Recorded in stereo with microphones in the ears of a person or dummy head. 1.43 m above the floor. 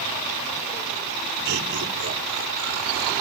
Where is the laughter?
65° right (ahead or behind), 3 m.